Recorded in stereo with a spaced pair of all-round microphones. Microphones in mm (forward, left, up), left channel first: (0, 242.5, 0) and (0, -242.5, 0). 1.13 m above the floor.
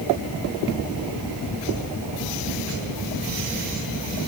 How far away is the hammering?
I don't hear hammering.